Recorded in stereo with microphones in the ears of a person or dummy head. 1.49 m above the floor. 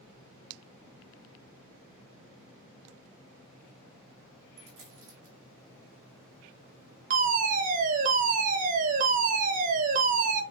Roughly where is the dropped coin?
Right.